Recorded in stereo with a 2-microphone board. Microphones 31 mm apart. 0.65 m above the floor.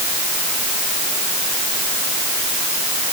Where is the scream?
I don't hear a scream.